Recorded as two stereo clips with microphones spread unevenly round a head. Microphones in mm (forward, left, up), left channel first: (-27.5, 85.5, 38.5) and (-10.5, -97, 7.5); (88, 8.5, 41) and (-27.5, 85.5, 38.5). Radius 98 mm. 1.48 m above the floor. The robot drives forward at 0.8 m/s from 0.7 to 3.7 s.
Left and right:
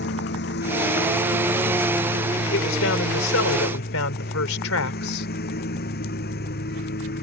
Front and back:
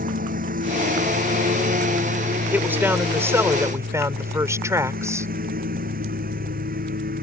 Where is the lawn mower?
125° left; by 7.2 s 130° left.